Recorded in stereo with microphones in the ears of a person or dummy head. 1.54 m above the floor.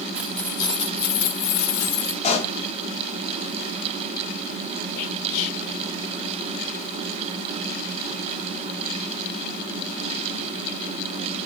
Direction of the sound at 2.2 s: 35° left (ahead or behind).